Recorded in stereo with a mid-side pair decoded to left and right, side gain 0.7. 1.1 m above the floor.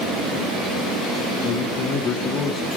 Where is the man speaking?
50° left, 2 m.